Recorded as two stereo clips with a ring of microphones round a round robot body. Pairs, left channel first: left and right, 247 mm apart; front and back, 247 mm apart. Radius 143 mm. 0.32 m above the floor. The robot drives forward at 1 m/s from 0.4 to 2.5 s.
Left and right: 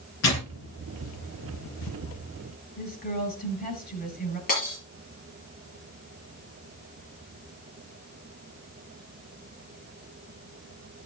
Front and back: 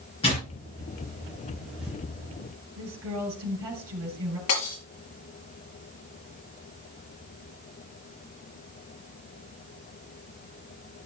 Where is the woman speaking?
145° left, 5.5 m.